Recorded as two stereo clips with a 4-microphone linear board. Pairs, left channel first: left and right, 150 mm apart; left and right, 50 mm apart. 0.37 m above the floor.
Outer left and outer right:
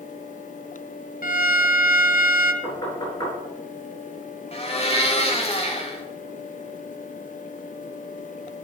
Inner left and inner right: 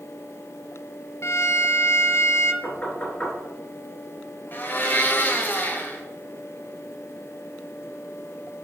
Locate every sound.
1.2 s a violin: 65° left (ahead or behind), 0.7 m
2.6 s knocking: 25° left (ahead or behind), 4 m
4.5 s a blender: 40° left (ahead or behind), 1.4 m